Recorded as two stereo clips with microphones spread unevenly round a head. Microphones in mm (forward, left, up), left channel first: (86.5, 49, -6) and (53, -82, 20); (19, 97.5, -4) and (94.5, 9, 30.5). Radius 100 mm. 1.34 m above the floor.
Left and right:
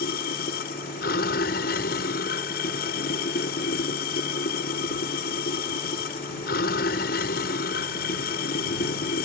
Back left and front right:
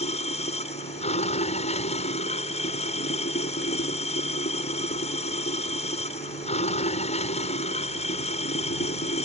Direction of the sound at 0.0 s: 100° left.